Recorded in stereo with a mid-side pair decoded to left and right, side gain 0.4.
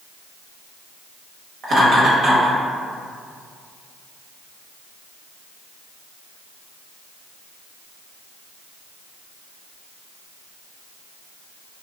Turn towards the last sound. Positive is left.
turn(degrees=-65)